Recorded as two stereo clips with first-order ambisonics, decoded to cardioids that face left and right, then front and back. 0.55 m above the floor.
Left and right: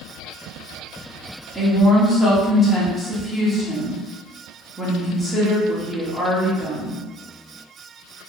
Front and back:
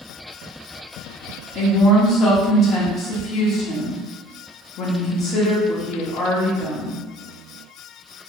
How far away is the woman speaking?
About 0.8 m.